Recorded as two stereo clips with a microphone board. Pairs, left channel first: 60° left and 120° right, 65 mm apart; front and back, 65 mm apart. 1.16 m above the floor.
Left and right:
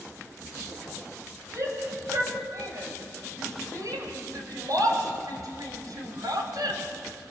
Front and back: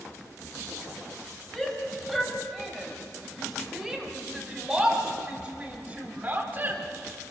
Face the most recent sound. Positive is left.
turn(degrees=-125)